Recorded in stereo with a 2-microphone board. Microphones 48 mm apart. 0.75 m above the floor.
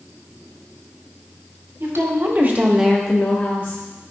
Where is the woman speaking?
65° right (ahead or behind), 2 m; by 3.8 s 55° left (ahead or behind), 1.7 m.